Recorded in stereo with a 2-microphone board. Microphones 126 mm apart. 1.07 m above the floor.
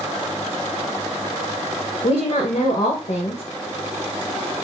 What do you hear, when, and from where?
2.0 s a woman speaking: 65° left (ahead or behind), 0.9 m